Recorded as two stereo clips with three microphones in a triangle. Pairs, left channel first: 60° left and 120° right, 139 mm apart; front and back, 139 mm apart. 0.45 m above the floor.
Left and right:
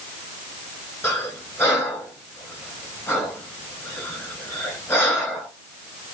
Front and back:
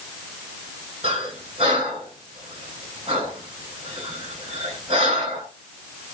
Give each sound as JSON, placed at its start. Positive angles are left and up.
{"t": 1.0, "sound": "breathing", "azimuth_deg": 130, "distance_m": 1.3}